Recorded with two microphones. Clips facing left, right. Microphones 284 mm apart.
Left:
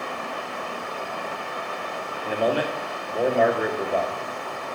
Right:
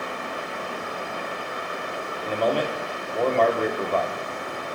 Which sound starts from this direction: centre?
A man speaking, at 2.2 s.